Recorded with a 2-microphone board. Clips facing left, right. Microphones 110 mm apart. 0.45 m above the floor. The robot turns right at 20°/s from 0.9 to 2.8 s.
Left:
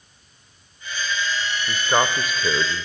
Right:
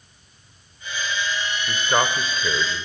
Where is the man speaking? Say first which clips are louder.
Left 1 dB; centre (ahead or behind), 1.3 m; by 2.9 s 20° left (ahead or behind), 1.3 m.